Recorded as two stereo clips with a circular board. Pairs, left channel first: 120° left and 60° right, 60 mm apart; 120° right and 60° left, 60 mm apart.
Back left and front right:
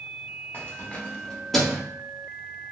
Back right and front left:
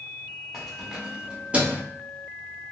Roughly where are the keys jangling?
Behind left.